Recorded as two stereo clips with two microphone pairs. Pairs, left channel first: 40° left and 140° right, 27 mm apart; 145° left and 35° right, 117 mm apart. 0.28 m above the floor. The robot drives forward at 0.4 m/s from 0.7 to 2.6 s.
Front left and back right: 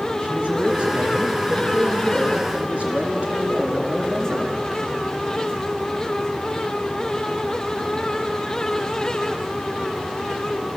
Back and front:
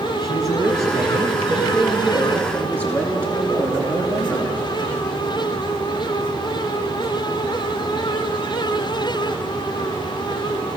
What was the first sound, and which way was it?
A man speaking, 95° right.